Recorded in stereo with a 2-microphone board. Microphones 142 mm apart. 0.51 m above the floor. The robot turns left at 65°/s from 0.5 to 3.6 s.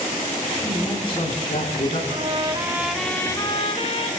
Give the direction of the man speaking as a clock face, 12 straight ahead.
6 o'clock.